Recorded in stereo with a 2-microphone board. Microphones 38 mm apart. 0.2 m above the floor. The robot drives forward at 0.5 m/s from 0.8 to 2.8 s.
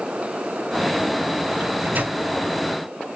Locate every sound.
1.6 s a microwave: 60° right (ahead or behind), 2.0 m; by 2.2 s 55° right (ahead or behind), 2.0 m